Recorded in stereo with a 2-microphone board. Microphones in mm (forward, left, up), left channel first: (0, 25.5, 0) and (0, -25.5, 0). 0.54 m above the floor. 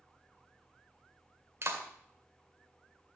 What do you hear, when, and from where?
1.6 s a clap: 55° right (ahead or behind), 1.9 m